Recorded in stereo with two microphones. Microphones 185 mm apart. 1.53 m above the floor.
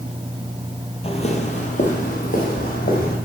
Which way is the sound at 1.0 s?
30° left (ahead or behind).